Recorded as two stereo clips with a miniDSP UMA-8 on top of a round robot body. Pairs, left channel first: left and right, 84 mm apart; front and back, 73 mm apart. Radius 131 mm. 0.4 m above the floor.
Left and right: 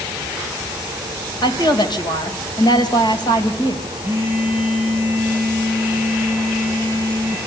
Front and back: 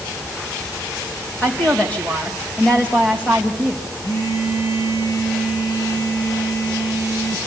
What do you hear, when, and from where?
1.4 s a woman speaking: 70° left, 3 m
4.0 s a phone buzzing: 25° right, 8.5 m